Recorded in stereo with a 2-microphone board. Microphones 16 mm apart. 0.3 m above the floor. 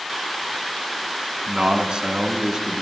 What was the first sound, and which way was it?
A man speaking, 65° right (ahead or behind).